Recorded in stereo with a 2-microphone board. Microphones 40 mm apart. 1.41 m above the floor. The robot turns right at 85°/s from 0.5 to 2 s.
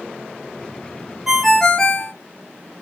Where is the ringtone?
20° right, 0.6 m; by 2.1 s 45° left, 0.6 m.